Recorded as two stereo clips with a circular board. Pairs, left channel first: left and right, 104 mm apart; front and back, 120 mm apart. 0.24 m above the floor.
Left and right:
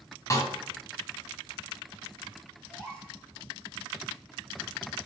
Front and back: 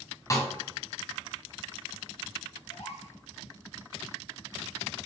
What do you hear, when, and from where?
0.3 s a snare drum: 50° left, 2 m
2.7 s a gasp: 10° left, 3.5 m